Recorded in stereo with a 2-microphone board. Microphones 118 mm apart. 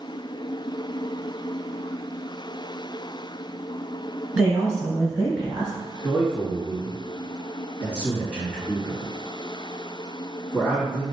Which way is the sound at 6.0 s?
10° right (ahead or behind).